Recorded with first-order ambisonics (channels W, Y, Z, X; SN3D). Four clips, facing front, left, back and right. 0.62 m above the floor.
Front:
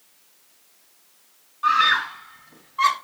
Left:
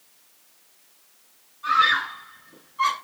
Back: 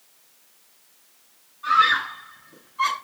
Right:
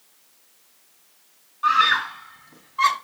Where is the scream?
45° right, 5.5 m.